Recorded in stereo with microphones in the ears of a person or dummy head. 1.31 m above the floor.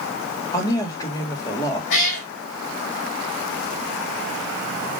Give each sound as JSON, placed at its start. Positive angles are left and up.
{"t": 0.5, "sound": "a woman speaking", "side_deg": 20, "distance_m": 2.5}
{"t": 1.9, "sound": "a cat meowing", "side_deg": 65, "distance_m": 3.0}